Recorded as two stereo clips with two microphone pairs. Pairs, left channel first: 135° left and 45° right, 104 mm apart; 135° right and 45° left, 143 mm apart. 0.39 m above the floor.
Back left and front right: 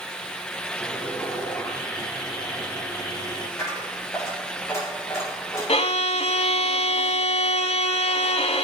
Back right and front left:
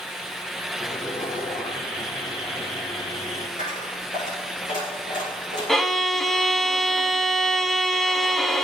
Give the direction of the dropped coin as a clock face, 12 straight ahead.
5 o'clock.